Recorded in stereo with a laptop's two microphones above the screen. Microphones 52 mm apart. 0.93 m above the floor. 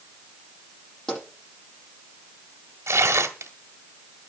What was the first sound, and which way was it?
A pop, 10° left (ahead or behind).